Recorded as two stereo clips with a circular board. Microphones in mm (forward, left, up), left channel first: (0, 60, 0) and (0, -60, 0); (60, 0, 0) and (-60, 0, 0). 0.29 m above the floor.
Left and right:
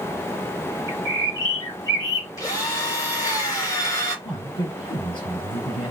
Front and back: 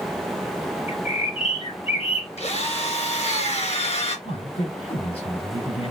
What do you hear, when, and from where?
0.9 s a bird: 30° left, 4 m
2.4 s a drill: 30° left, 2.5 m
4.2 s a man speaking: 40° left, 4.5 m